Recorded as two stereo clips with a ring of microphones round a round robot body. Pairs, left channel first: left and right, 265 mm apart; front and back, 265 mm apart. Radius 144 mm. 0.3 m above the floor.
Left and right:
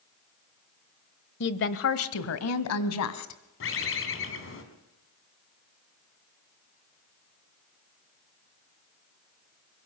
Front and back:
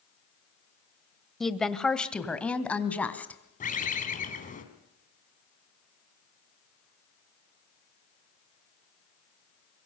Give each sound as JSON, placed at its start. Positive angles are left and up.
{"t": 1.4, "sound": "a woman speaking", "azimuth_deg": 90, "distance_m": 1.2}
{"t": 3.6, "sound": "a bird", "azimuth_deg": 55, "distance_m": 3.0}